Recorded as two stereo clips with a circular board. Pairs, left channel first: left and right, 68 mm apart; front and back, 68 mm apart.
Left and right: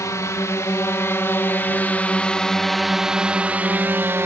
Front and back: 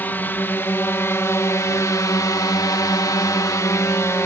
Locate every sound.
0.0 s a drone: 60° left; by 4.3 s 45° right